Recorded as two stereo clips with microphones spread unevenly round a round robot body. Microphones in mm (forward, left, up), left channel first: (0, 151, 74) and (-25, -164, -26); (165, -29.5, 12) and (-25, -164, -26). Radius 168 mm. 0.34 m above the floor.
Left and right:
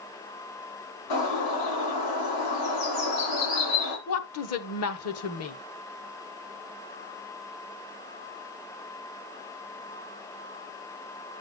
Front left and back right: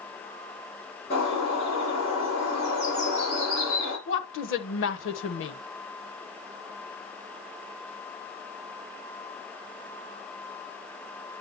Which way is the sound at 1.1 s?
110° left.